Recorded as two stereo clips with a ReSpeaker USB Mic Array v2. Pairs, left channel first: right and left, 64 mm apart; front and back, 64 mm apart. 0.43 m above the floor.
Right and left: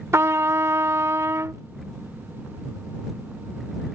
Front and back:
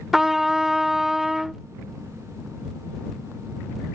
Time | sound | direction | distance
0.1 | a trumpet | 100° left | ?